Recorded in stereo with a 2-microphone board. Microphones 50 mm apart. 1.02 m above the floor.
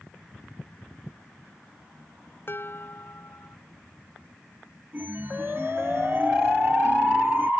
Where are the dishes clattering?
50° left (ahead or behind).